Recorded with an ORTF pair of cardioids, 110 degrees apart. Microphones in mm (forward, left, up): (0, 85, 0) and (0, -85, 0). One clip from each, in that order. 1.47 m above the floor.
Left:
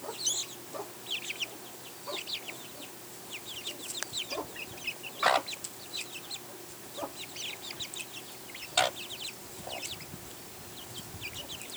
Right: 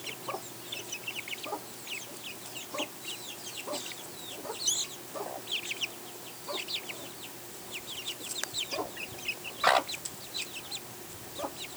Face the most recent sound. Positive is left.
No sound to turn to.